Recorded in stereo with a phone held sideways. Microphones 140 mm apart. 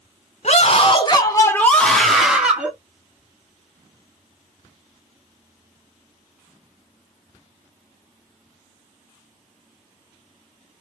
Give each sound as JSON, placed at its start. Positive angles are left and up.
{"t": 0.4, "sound": "a scream", "side_deg": 55, "distance_m": 0.9}